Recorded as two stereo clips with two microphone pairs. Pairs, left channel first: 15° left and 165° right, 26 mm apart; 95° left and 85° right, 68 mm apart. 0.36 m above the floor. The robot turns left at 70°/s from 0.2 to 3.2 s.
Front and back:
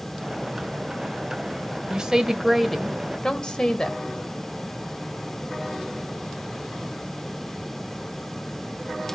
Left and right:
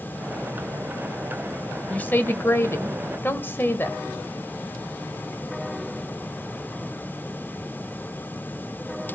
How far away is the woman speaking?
About 1.7 m.